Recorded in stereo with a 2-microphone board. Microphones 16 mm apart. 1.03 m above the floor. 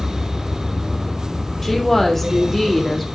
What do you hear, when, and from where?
1.6 s a woman speaking: 15° left (ahead or behind), 3 m